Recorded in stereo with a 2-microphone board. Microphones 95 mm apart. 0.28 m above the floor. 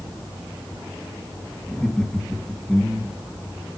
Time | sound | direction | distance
1.7 | laughter | 10° left (ahead or behind) | 2.5 m